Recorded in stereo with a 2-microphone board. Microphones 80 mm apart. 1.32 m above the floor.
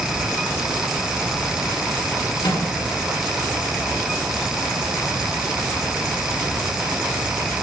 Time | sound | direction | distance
2.4 | a microwave | 75° left (ahead or behind) | 8 m